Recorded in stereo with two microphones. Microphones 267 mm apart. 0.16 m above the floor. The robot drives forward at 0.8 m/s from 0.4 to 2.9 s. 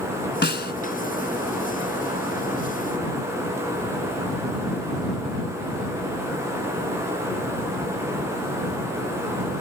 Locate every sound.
0.4 s a snare drum: 40° left (ahead or behind)